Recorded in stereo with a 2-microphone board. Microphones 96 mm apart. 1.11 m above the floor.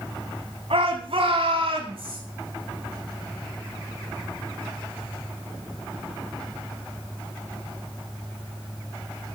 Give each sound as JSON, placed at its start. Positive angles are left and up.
{"t": 0.7, "sound": "a shout", "side_deg": -75, "distance_m": 9.0}